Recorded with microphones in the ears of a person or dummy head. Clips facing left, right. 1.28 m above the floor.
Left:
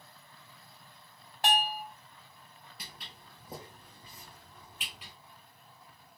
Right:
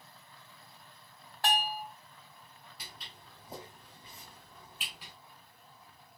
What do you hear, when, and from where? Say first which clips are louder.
1.4 s a bell: left 2 dB; 15° left (ahead or behind), 0.8 m
2.8 s footsteps: left 1 dB; 40° left (ahead or behind), 1.6 m; by 5.1 s 10° left (ahead or behind), 1.8 m